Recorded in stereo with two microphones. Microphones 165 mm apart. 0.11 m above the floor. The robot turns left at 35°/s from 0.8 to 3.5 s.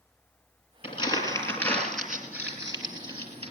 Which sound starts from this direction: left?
Crumpling, at 0.8 s.